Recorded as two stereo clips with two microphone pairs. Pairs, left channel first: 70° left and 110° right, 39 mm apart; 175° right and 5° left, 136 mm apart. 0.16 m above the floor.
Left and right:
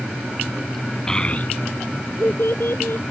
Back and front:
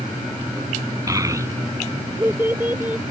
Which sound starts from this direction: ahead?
A child speaking, at 1.1 s.